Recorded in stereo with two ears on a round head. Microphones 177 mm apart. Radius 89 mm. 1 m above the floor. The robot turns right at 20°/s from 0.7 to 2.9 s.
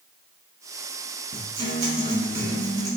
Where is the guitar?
50° right, 1.4 m; by 2.9 s 20° right, 1.4 m.